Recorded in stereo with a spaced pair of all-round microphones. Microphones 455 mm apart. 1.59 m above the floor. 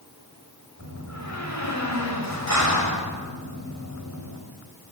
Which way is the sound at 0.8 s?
40° right (ahead or behind).